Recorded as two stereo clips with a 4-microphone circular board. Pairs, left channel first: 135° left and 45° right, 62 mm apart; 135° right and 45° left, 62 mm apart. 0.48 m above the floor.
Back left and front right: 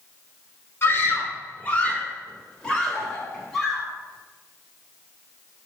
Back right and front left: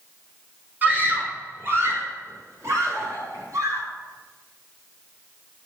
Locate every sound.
0.8 s a scream: 95° left, 1.9 m; by 3.9 s 50° left, 2.5 m